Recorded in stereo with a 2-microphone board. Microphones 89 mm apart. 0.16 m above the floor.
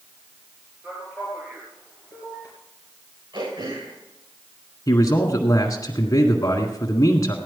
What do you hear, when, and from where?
0.8 s a man speaking: 25° right (ahead or behind), 3 m
3.3 s throat clearing: 65° right (ahead or behind), 7 m
4.9 s a man speaking: 40° left (ahead or behind), 1.6 m